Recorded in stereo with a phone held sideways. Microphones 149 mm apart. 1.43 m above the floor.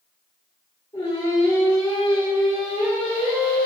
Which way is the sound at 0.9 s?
30° left (ahead or behind).